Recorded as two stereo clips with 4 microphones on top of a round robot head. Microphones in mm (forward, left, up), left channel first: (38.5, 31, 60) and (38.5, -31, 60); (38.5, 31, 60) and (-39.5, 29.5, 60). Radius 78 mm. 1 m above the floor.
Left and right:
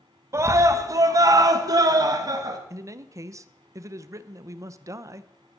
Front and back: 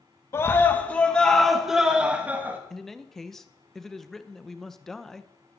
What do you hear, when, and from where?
0.3 s a scream: 55° right, 1.4 m; by 2.6 s 110° right, 1.7 m
2.7 s a man speaking: 85° right, 0.7 m